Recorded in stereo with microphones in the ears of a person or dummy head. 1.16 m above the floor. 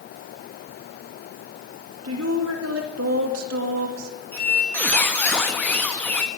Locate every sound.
2.0 s a woman speaking: 80° right, 1.9 m
4.3 s a squeak: 10° left (ahead or behind), 1.2 m